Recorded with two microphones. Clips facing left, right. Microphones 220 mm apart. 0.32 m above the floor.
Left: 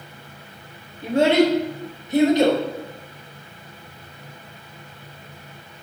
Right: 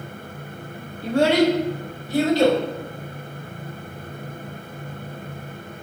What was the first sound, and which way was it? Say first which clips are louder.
A child speaking: left 1 dB; 20° left (ahead or behind).